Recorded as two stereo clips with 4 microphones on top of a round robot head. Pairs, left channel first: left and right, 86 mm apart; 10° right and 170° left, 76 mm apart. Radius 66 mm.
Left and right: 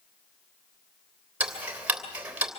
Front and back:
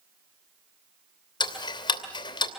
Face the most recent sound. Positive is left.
turn(degrees=-15)